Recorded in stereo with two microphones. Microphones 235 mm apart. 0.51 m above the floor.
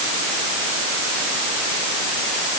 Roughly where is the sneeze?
I don't hear a sneeze.